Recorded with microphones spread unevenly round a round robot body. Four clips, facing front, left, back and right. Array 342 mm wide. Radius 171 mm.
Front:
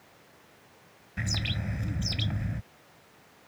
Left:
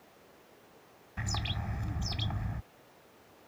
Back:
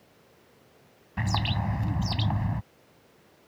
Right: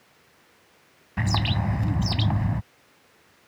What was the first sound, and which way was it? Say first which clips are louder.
A bird: right 12 dB, back 6 dB; 115° right.